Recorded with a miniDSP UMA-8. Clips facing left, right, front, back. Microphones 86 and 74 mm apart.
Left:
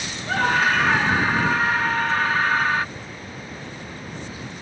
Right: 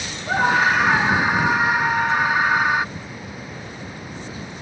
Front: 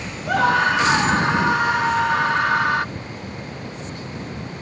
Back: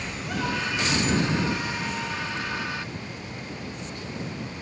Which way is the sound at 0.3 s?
15° right.